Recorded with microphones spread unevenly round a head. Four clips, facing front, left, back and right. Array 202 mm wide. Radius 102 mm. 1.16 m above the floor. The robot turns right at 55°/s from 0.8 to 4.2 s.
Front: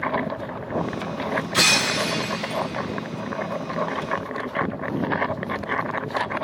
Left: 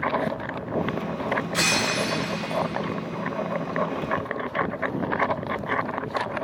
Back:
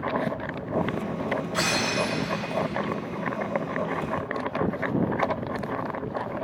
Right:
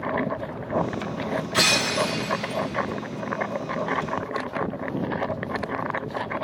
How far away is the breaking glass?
About 5 m.